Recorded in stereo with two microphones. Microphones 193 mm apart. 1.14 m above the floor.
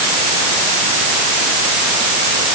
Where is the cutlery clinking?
No cutlery clinking in this recording.